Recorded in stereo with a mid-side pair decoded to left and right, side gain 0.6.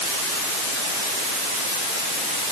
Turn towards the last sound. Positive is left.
No sound to turn to.